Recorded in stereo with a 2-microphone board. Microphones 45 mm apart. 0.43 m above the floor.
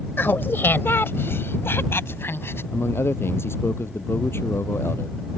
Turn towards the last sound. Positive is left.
turn(degrees=70)  # may be behind; listen again after turning